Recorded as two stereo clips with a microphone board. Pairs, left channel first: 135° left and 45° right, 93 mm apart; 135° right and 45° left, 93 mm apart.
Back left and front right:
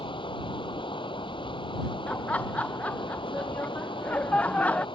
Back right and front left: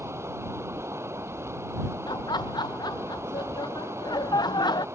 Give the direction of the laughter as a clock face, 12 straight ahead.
5 o'clock.